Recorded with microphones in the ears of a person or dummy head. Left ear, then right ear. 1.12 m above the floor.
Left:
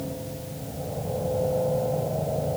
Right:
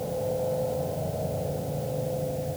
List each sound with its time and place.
Only background noise.